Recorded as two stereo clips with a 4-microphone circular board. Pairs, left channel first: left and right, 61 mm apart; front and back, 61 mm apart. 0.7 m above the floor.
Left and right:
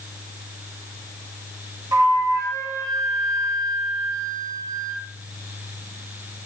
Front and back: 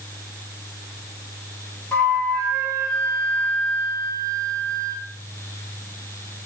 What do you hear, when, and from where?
1.9 s a flute: 60° right, 2.5 m